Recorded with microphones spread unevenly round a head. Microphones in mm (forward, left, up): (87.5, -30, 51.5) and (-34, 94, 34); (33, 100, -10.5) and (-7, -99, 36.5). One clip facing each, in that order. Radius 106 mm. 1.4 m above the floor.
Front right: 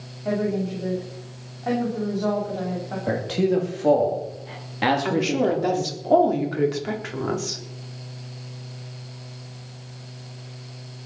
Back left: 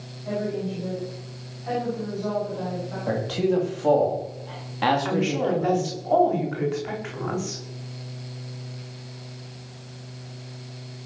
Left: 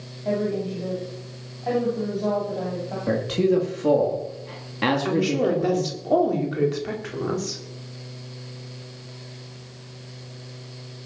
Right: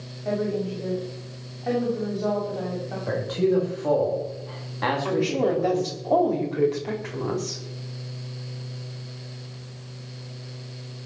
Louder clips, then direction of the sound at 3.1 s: Front right 1 dB, left 2 dB; 30° left.